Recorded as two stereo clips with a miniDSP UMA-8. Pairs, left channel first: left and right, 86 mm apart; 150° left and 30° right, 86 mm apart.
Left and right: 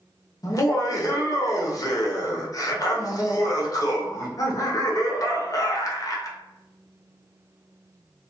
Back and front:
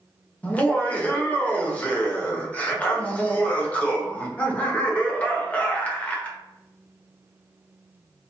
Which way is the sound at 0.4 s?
85° left.